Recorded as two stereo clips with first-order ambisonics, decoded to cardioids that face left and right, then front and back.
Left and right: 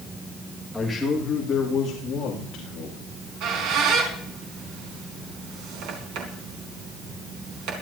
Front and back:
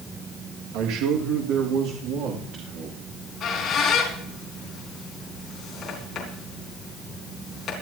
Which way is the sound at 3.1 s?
60° right.